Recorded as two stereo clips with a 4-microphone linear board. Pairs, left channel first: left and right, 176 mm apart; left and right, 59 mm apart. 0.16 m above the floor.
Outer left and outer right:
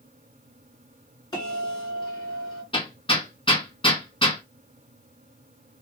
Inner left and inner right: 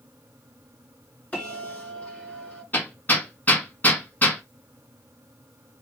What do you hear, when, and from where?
1.3 s a bell: 25° left (ahead or behind), 2.5 m
2.7 s hammering: 30° left (ahead or behind), 1.3 m